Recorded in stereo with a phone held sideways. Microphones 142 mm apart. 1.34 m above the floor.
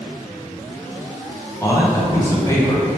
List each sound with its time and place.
1.6 s a man speaking: 20° left (ahead or behind), 0.6 m